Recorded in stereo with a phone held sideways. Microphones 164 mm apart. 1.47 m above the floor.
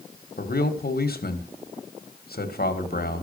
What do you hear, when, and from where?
0.4 s a man speaking: 70° left (ahead or behind), 1.8 m